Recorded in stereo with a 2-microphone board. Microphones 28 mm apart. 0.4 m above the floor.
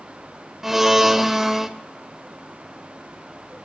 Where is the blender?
10° right (ahead or behind), 1.0 m.